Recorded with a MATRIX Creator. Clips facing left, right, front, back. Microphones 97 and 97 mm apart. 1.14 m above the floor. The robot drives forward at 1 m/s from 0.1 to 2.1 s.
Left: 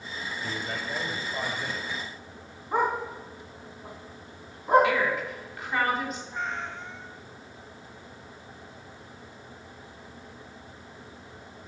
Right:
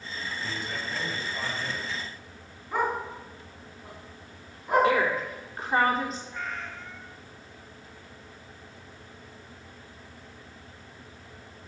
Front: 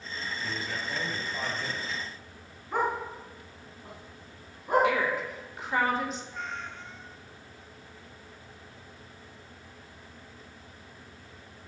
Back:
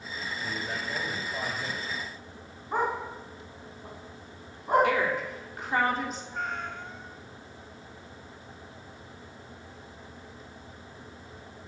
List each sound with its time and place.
0.4 s a man speaking: 125° left, 5.5 m; by 2.0 s 140° left, 6.5 m
2.7 s a dog barking: 145° left, 4.5 m
4.8 s a woman speaking: 140° right, 3 m
6.3 s a cat meowing: 150° left, 0.7 m